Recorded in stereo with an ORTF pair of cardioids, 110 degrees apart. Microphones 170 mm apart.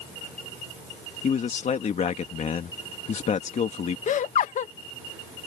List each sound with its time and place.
1.2 s a man speaking: 45° left
4.1 s laughter: 50° left